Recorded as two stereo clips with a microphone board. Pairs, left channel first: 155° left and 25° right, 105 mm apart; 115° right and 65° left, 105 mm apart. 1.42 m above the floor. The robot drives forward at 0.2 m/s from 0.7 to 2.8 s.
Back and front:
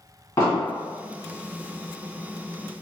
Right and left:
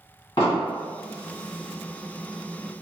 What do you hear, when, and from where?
0.4 s an explosion: 145° right, 1.8 m